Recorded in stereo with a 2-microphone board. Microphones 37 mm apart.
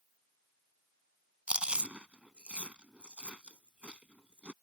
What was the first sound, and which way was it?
Chewing, 35° right (ahead or behind).